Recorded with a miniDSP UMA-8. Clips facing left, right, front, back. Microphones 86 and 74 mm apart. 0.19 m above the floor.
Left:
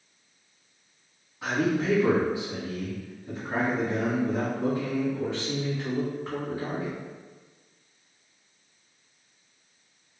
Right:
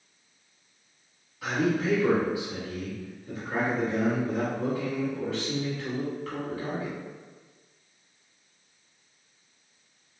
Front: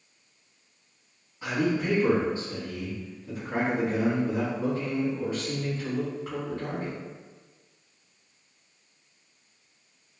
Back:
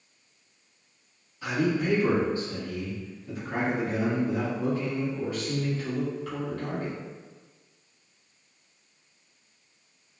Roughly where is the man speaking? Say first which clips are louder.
Left 1 dB, even; ahead left.